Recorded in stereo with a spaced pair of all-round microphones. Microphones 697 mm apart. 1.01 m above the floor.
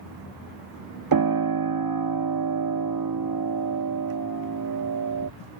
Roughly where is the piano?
Right.